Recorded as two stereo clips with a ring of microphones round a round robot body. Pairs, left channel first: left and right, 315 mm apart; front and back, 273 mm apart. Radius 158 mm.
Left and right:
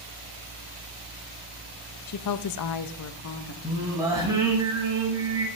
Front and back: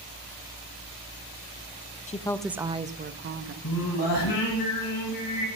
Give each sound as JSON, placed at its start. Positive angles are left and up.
{"t": 2.1, "sound": "a woman speaking", "azimuth_deg": 60, "distance_m": 0.5}
{"t": 3.6, "sound": "singing", "azimuth_deg": -10, "distance_m": 3.0}